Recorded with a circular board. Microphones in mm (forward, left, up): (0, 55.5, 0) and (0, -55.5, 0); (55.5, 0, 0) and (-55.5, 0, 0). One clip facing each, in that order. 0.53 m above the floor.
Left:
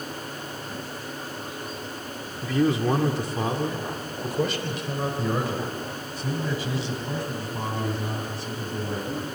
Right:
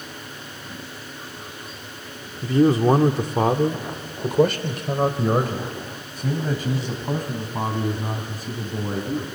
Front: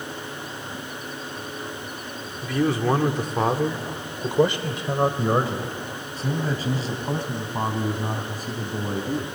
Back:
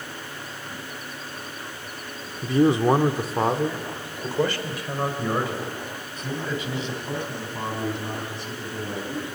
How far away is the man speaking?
About 1.3 m.